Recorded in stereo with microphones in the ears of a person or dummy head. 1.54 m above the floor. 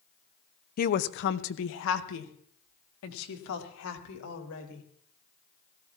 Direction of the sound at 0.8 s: 45° left (ahead or behind).